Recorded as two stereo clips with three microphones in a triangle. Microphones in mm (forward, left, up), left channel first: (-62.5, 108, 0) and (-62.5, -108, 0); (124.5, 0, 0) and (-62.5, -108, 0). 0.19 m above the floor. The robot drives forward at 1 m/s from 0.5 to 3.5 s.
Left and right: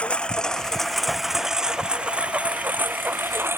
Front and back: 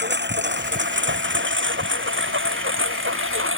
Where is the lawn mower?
175° left; by 3.6 s 170° right.